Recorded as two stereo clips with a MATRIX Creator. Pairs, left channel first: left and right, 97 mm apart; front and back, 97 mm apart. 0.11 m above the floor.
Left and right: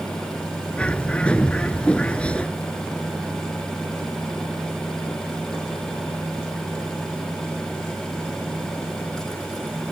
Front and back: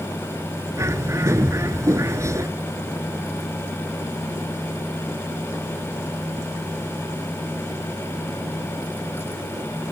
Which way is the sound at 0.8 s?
155° left.